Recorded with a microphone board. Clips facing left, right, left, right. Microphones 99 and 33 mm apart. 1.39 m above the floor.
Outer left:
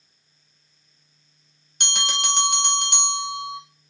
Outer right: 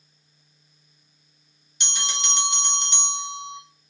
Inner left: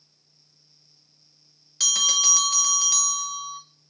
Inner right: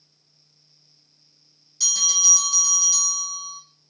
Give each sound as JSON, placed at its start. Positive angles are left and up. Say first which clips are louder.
{"t": 1.8, "sound": "a bell", "louder": "outer left 4 dB, inner left 2 dB", "side_deg": 55, "distance_m": 0.7}